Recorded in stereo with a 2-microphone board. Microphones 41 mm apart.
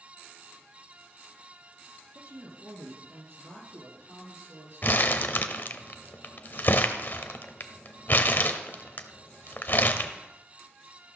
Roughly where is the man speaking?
Right.